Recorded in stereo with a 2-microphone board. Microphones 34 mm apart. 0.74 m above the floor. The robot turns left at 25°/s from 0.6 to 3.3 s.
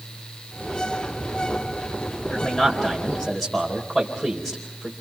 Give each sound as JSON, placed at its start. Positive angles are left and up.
{"t": 2.3, "sound": "a man speaking", "side_deg": 35, "distance_m": 4.0}